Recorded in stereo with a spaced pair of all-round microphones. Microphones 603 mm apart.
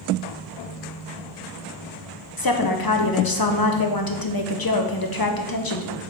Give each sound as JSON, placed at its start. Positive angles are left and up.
{"t": 2.4, "sound": "a woman speaking", "side_deg": 35, "distance_m": 0.7}